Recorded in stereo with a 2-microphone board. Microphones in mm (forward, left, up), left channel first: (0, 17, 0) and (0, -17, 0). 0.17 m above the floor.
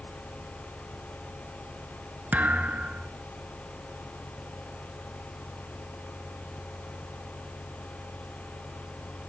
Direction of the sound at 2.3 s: 60° right (ahead or behind).